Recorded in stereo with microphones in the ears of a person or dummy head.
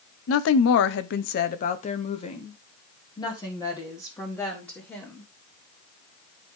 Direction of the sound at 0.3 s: 70° left (ahead or behind).